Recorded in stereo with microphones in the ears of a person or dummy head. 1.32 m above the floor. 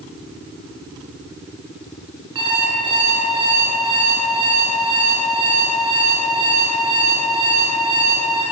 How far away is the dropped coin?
No dropped coin in this recording.